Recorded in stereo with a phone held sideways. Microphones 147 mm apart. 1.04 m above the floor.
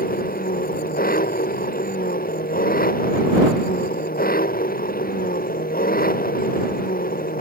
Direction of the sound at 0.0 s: 80° left.